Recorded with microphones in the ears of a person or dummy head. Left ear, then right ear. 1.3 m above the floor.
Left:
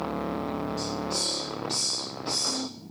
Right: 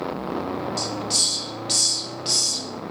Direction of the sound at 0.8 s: 45° right (ahead or behind).